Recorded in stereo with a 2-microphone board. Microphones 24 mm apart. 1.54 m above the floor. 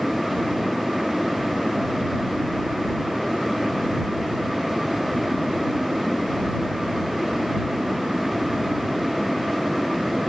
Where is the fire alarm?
I don't hear a fire alarm.